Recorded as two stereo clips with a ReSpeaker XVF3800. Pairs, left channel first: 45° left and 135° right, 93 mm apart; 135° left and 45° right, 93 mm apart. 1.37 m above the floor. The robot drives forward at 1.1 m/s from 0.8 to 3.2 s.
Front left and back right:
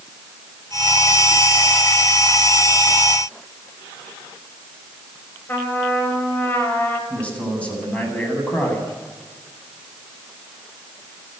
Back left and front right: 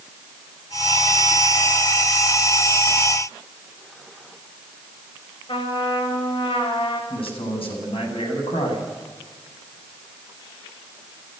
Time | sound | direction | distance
5.5 | a trumpet | 110° left | 6 m
7.1 | a man speaking | 120° left | 9 m